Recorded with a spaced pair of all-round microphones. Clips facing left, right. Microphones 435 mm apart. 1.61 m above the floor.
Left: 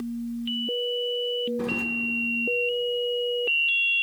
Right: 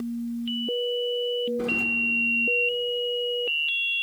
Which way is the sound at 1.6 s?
5° left (ahead or behind).